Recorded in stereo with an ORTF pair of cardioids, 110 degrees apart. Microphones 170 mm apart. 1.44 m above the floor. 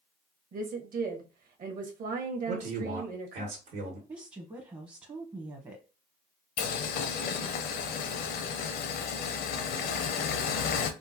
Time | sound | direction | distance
0.5 | a woman speaking | 50° right | 1.2 m
2.5 | a man speaking | 65° right | 1.4 m
4.1 | a woman speaking | 25° right | 0.8 m
6.6 | boiling | 60° left | 0.6 m